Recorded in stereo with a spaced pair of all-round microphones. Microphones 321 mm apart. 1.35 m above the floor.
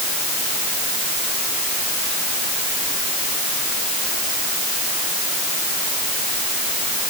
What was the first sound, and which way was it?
Only background noise.